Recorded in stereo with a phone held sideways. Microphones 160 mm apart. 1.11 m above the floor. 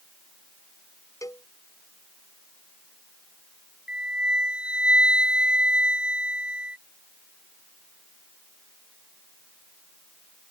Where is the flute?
75° left (ahead or behind).